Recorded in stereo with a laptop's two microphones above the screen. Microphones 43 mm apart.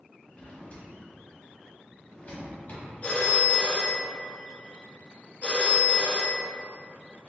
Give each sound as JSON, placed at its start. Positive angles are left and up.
{"t": 0.3, "sound": "a drawer", "side_deg": 40, "distance_m": 1.7}
{"t": 3.0, "sound": "a phone ringing", "side_deg": 30, "distance_m": 0.6}